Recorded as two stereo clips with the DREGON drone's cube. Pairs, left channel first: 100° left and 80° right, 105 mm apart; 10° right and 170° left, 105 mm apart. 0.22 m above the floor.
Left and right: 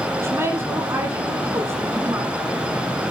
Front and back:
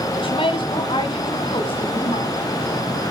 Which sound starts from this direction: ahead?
A woman speaking, at 0.1 s.